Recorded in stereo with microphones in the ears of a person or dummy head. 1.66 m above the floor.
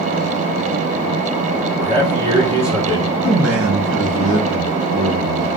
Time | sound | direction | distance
1.8 | a man speaking | 25° right (ahead or behind) | 2 m
3.2 | a man speaking | 60° right (ahead or behind) | 1.7 m